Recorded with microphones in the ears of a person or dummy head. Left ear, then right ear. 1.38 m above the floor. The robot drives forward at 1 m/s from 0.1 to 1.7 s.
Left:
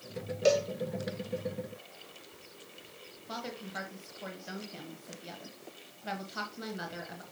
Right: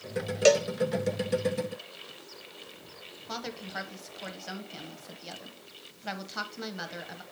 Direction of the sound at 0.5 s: 40° right (ahead or behind).